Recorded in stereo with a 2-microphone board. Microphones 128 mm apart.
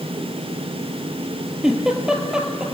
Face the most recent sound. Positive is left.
turn(degrees=-5)  # may be behind; listen again after turning